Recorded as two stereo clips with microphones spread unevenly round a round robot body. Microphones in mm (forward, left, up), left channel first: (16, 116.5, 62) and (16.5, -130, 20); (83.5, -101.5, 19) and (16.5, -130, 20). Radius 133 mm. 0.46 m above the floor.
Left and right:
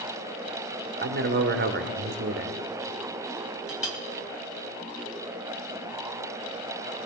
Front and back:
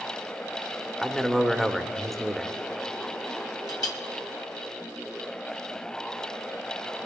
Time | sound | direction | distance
1.0 | a man speaking | 65° right | 1.3 m
3.7 | a clink | 5° right | 1.8 m